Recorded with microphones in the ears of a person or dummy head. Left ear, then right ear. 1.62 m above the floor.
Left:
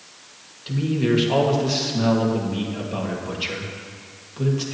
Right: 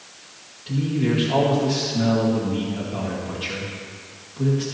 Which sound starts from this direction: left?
A man speaking, at 0.7 s.